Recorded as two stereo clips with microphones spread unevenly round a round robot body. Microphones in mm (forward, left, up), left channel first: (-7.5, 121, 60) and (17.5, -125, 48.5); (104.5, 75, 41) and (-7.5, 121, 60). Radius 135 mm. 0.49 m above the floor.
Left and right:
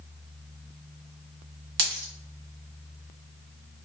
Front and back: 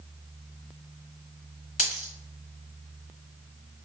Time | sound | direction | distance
1.8 | a dropped coin | 60° right | 1.2 m